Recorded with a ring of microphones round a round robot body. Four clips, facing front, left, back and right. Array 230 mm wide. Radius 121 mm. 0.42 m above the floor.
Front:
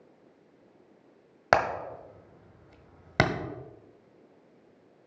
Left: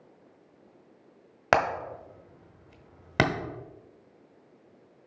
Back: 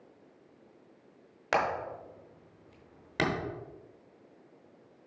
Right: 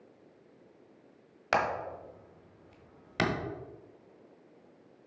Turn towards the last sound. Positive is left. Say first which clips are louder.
# left 5 dB, front 5 dB
turn(degrees=50)